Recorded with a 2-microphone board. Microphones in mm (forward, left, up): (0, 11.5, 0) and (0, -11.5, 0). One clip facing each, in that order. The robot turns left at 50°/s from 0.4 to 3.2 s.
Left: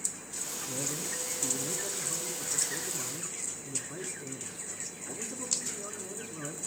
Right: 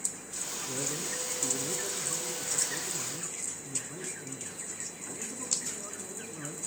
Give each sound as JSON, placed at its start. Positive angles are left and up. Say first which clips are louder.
{"t": 0.7, "sound": "a man speaking", "louder": "right 1 dB", "side_deg": -15, "distance_m": 1.3}